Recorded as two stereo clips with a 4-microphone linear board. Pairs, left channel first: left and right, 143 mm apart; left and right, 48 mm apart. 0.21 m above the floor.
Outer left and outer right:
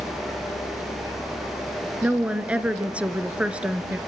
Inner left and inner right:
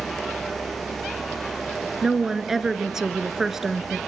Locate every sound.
2.0 s a woman speaking: 10° right (ahead or behind), 3 m